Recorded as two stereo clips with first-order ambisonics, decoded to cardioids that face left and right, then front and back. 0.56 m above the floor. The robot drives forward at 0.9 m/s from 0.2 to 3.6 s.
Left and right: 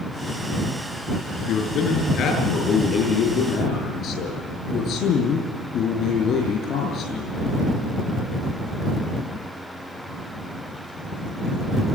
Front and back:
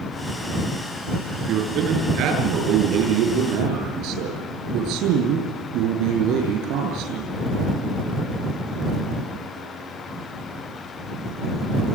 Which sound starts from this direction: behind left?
A man speaking, at 1.4 s.